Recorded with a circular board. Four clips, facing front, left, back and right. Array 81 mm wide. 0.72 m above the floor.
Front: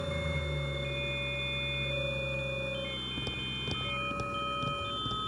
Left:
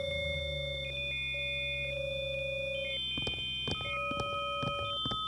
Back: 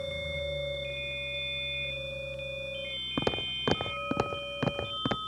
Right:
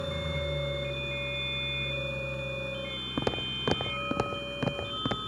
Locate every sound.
0.0 s an engine running: 50° right
3.2 s footsteps: 140° right; by 5.2 s 150° right